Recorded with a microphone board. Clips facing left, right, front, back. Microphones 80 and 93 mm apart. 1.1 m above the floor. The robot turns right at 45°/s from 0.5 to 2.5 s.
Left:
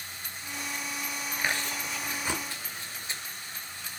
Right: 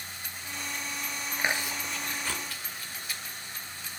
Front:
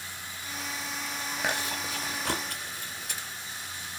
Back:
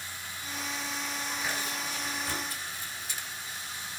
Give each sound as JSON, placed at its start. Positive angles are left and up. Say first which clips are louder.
{"t": 1.4, "sound": "chewing", "louder": "right 1 dB, front 6 dB", "azimuth_deg": -20, "distance_m": 2.0}